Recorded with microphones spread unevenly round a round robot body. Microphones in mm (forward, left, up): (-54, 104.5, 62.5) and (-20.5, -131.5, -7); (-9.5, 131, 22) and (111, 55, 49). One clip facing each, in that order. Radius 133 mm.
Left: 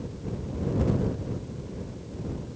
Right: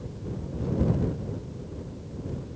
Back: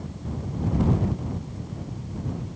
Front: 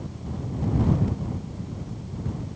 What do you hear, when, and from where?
Only background noise.